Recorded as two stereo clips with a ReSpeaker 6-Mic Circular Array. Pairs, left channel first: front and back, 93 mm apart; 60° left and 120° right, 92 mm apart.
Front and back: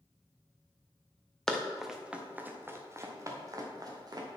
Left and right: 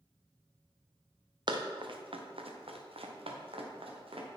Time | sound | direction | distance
1.5 | running footsteps | 85° right | 1.5 m